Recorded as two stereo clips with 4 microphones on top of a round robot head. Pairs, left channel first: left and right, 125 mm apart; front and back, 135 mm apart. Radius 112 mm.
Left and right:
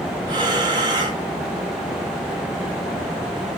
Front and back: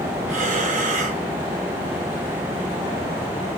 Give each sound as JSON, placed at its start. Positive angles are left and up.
{"t": 0.3, "sound": "breathing", "azimuth_deg": -145, "distance_m": 4.5}